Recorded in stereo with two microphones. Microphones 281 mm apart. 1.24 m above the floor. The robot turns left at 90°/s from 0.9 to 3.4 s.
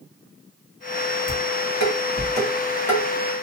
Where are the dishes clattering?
40° right (ahead or behind), 1.5 m; by 3.0 s 20° left (ahead or behind), 1.5 m.